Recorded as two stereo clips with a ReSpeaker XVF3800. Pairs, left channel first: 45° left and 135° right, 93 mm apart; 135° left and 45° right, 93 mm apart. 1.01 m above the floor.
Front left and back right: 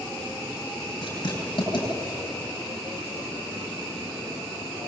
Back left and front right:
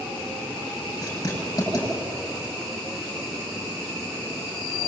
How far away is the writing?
About 9.5 m.